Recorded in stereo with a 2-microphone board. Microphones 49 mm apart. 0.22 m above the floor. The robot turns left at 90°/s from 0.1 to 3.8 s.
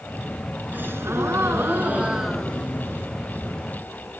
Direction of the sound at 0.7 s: 40° right.